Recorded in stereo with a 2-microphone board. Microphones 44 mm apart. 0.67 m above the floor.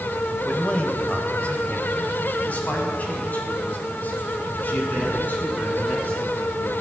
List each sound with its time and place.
0.5 s a man speaking: 25° left (ahead or behind), 3.5 m; by 6.7 s 45° left (ahead or behind), 10 m